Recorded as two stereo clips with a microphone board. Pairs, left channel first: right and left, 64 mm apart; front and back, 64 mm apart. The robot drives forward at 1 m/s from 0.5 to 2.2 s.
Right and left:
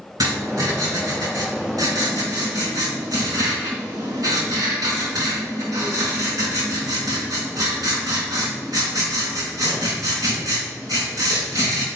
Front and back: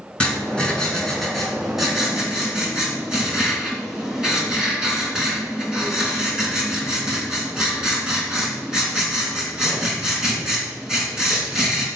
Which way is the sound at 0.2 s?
75° left.